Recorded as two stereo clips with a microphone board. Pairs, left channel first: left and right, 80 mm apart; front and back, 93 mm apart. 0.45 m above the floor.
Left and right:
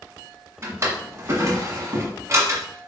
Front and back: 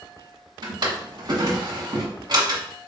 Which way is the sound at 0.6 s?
140° right.